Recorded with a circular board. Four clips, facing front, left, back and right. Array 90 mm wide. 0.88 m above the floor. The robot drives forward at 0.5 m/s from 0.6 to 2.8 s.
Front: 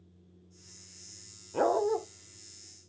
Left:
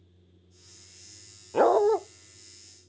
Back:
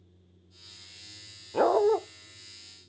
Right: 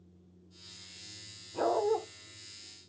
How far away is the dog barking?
About 0.6 m.